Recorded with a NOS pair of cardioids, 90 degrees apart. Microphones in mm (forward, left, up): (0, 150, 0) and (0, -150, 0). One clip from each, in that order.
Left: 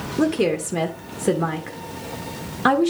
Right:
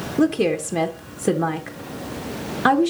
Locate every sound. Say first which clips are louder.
0.2 s a woman speaking: right 1 dB; 10° right, 0.8 m